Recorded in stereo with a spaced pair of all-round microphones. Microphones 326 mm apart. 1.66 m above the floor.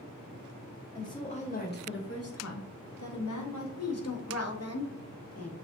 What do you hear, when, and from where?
0.9 s a woman speaking: 10° left (ahead or behind), 1.0 m; by 3.7 s 60° left (ahead or behind), 1.1 m
3.8 s a woman speaking: 50° left (ahead or behind), 0.7 m